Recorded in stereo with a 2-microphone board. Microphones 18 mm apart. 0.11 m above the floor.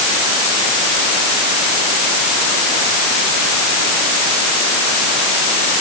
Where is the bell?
I don't hear a bell.